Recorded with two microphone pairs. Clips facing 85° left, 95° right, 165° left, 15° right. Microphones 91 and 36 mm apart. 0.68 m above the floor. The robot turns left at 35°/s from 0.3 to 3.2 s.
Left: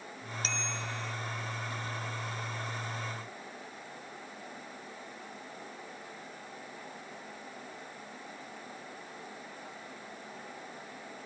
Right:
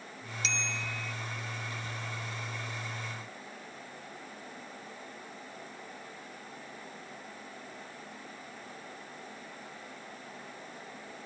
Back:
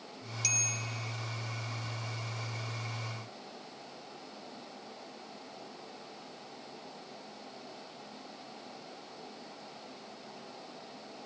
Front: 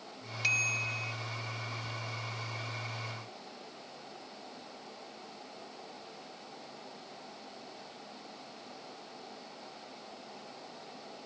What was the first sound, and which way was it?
A bicycle bell, 40° left.